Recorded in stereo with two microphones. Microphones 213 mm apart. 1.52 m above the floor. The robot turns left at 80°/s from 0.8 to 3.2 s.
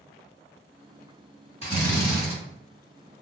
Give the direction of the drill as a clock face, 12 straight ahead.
11 o'clock.